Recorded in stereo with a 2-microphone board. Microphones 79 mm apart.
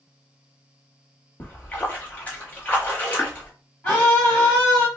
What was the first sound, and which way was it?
A splash, 20° left (ahead or behind).